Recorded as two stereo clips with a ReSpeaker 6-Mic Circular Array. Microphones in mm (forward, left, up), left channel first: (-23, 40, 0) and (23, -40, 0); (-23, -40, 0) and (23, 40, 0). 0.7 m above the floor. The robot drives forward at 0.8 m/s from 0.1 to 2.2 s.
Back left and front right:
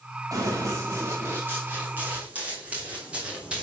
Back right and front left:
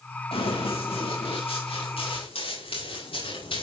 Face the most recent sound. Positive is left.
turn(degrees=-140)